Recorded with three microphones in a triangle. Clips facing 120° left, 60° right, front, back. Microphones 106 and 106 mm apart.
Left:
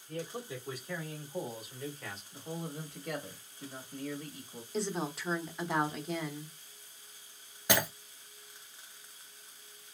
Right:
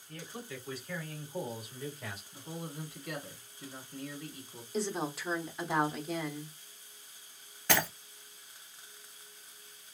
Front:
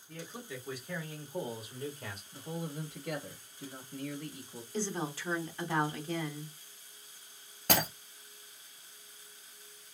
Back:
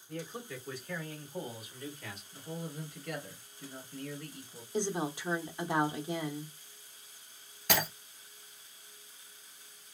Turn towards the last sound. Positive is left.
turn(degrees=45)